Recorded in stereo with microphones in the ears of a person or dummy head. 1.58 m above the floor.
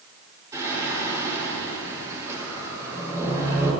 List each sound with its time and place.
0.5 s singing: 15° right (ahead or behind), 5.5 m